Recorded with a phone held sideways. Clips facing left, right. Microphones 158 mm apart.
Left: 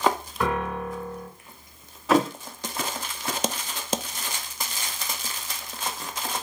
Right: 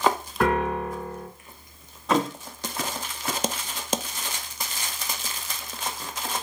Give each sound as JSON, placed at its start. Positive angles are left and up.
{"t": 0.4, "sound": "a piano", "side_deg": -70, "distance_m": 4.5}
{"t": 2.1, "sound": "a thud", "side_deg": 0, "distance_m": 2.0}